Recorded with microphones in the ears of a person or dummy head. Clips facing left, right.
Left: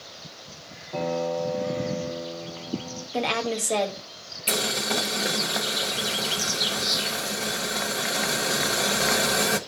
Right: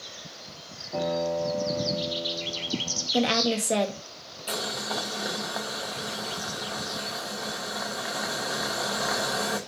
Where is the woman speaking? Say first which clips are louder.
Right 2 dB; 20° right (ahead or behind), 1.6 m.